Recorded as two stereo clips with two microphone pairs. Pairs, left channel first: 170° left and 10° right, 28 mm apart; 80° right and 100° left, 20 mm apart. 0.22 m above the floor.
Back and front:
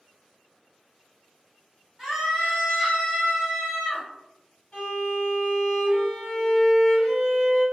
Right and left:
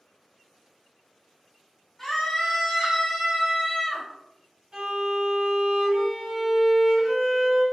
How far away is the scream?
About 1.5 m.